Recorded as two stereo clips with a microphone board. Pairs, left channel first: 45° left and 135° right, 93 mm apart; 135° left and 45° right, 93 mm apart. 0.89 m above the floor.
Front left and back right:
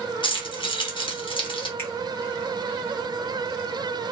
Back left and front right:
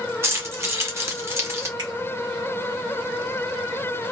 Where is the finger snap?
15° right, 1.4 m.